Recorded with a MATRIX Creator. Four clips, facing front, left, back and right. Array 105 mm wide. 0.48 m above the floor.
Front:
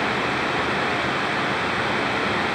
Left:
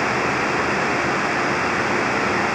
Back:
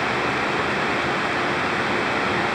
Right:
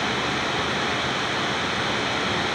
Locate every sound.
Only background noise.